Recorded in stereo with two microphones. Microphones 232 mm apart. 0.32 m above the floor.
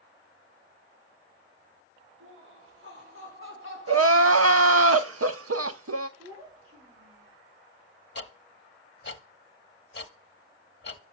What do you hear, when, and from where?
2.2 s laughter: 65° right (ahead or behind), 3.5 m; by 4.9 s 45° right (ahead or behind), 2 m
3.9 s crying: 80° right, 0.5 m
6.2 s a child speaking: 70° right (ahead or behind), 5.5 m
8.2 s ticking: 50° left (ahead or behind), 0.8 m